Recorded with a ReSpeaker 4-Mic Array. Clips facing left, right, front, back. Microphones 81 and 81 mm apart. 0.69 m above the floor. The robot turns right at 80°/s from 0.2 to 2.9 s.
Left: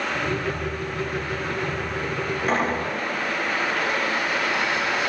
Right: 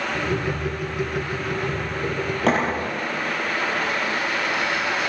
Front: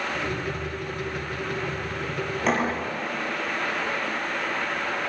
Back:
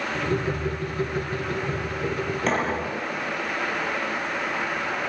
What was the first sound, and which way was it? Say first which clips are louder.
A thud: right 3 dB, front 1 dB; 85° right.